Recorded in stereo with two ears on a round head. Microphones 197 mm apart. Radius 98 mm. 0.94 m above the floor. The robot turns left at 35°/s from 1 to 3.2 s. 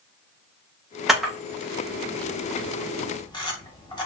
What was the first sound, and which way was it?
A camera shutter, centre (ahead or behind).